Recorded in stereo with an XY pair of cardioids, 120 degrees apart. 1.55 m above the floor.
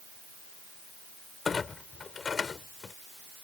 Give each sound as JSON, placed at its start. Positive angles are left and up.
{"t": 1.4, "sound": "a clunk", "azimuth_deg": 30}